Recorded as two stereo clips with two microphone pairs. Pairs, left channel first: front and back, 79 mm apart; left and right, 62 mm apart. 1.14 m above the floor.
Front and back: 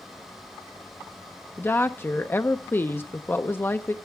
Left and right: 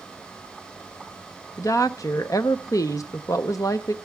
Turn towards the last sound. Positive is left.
turn(degrees=65)